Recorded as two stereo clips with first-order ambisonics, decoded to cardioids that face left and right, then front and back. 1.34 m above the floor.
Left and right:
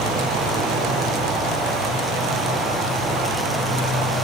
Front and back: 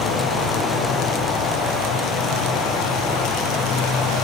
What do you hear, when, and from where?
0.0 s an insect: 35° right, 3 m